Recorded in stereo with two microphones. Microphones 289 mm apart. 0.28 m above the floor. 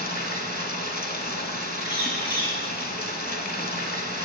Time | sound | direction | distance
0.0 | running water | 30° left (ahead or behind) | 0.8 m
1.8 | a bird | 15° left (ahead or behind) | 2 m